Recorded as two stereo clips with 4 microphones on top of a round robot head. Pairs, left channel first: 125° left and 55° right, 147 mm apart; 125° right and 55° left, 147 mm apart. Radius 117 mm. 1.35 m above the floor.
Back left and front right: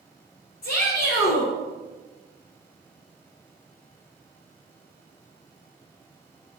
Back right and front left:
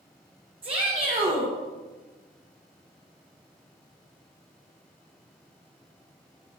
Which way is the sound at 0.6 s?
110° left.